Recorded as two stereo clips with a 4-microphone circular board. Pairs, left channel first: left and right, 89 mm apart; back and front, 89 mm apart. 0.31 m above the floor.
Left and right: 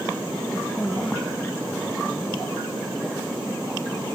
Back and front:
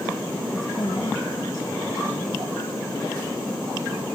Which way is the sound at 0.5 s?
150° left.